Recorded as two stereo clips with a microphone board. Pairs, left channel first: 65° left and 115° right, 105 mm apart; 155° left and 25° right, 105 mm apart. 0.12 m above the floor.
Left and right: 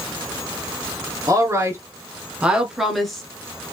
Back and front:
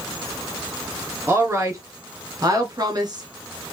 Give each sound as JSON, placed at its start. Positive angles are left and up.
{"t": 1.3, "sound": "a woman speaking", "azimuth_deg": -75, "distance_m": 1.5}